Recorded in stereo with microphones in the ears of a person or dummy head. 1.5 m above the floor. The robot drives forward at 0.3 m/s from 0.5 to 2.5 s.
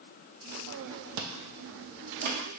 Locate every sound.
1.2 s chewing: 75° right (ahead or behind), 0.7 m; by 2.4 s 50° right (ahead or behind), 0.8 m